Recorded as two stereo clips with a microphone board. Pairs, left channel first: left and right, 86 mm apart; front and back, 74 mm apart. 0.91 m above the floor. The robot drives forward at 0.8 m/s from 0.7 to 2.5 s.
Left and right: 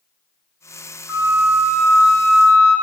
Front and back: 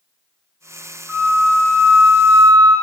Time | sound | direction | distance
1.1 | a flute | 110° right | 0.6 m